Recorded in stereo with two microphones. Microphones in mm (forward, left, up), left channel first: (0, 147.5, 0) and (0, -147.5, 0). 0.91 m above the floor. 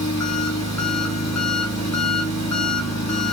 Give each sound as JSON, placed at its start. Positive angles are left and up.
{"t": 0.0, "sound": "an engine running", "side_deg": 60, "distance_m": 1.2}